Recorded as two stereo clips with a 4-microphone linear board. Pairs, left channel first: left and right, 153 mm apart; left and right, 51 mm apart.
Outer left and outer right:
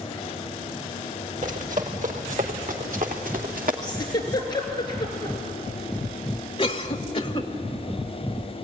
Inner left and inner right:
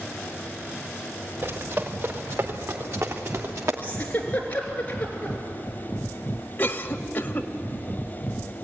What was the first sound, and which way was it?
Running footsteps, 55° right (ahead or behind).